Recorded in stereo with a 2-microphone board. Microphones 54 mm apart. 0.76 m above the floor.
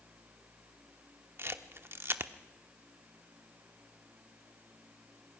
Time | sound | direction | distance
1.4 | a camera shutter | 50° right (ahead or behind) | 1.0 m